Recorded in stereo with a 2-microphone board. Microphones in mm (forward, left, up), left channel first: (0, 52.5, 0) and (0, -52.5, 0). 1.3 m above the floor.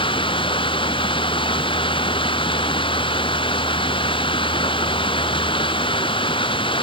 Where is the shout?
No shout in this recording.